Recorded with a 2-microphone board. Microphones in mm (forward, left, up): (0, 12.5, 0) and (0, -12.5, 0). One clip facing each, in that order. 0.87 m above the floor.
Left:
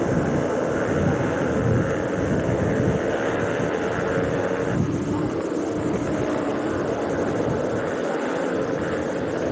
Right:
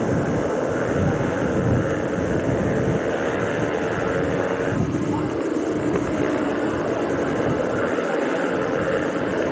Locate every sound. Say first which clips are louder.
0.0 s a motorcycle: even; 10° right (ahead or behind); by 9.5 s 55° right (ahead or behind)